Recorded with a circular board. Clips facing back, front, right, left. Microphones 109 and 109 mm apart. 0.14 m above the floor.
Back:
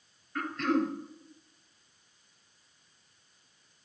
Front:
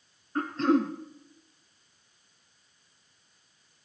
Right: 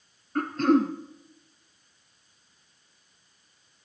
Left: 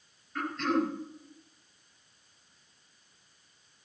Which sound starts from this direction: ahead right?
Throat clearing, at 0.3 s.